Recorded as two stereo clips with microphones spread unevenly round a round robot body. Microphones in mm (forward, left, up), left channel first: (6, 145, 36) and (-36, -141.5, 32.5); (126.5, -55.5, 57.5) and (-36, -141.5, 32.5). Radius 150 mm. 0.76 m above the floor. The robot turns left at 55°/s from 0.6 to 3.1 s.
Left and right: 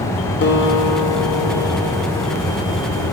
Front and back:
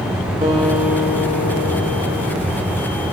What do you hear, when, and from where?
0.4 s a guitar: 135° left, 0.8 m; by 2.4 s 40° left, 0.8 m